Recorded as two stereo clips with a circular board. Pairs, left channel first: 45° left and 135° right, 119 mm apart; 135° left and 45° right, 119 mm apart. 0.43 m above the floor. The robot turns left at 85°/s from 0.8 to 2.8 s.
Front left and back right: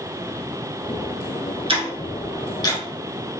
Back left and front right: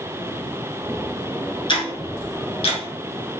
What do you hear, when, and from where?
1.7 s ticking: 175° right, 1.4 m; by 2.8 s 90° left, 1.4 m